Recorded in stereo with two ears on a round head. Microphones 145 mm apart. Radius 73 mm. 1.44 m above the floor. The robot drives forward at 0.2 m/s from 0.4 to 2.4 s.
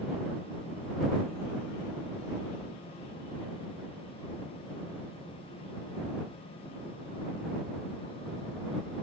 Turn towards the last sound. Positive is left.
No sound to turn to.